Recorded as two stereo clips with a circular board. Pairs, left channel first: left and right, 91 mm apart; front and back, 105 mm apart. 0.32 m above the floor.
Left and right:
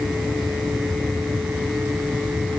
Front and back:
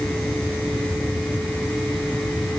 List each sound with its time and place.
Only background noise.